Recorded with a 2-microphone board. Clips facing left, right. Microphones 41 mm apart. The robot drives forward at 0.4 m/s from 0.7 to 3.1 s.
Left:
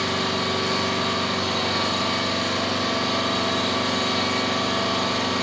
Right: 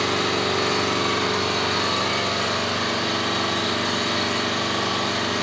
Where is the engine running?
75° right (ahead or behind), 0.9 m; by 5.4 s 45° right (ahead or behind), 1.1 m.